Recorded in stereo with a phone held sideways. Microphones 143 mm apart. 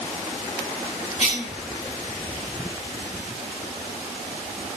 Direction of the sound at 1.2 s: 50° left (ahead or behind).